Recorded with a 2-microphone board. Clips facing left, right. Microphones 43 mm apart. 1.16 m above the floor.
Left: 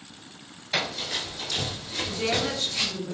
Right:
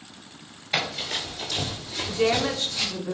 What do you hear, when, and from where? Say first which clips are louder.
0.7 s running footsteps: right 1 dB; 30° right (ahead or behind), 1.3 m; by 2.9 s 45° left (ahead or behind), 1.6 m
2.1 s a woman speaking: right 5 dB; 40° right (ahead or behind), 0.8 m